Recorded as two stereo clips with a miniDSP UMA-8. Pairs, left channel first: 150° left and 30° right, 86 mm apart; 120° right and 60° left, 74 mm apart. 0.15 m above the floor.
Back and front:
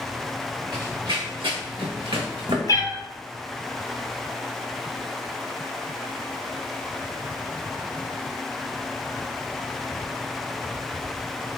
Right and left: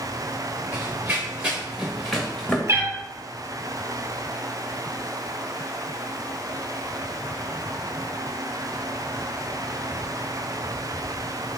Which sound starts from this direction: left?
A cat meowing, at 2.7 s.